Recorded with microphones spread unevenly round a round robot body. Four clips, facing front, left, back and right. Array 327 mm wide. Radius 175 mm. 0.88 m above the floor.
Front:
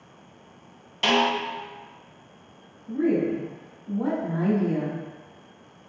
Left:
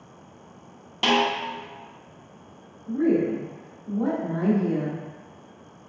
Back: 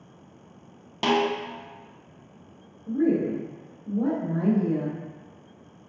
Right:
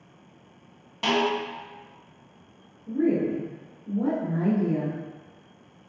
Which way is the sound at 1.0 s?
165° left.